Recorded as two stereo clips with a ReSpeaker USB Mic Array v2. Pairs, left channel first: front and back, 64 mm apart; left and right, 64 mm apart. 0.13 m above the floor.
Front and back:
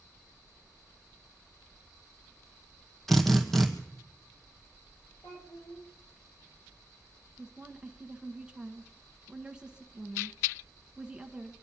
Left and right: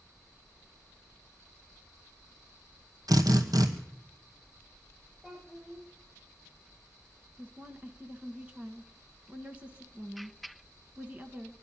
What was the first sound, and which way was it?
A drill, 85° right.